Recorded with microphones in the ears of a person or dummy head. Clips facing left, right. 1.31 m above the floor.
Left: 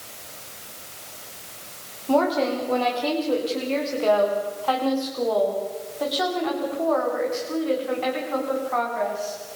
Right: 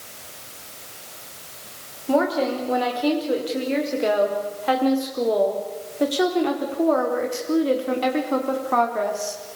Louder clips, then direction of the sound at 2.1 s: Even; 15° right (ahead or behind).